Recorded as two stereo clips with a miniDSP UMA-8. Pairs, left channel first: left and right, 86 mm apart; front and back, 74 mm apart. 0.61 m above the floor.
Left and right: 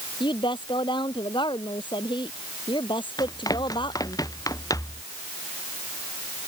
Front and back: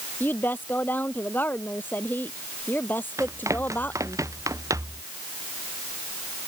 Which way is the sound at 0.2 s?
65° left.